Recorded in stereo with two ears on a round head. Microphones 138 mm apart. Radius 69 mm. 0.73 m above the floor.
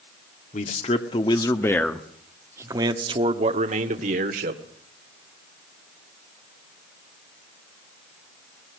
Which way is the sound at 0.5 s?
45° left (ahead or behind).